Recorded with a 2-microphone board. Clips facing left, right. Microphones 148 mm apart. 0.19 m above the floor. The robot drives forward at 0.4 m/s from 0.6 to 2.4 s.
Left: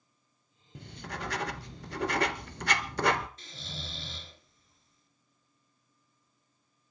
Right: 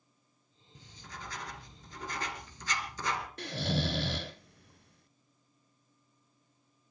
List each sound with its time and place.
0.8 s writing: 65° left (ahead or behind), 1.1 m; by 3.3 s 70° left (ahead or behind), 1.1 m
3.4 s snoring: 70° right (ahead or behind), 0.6 m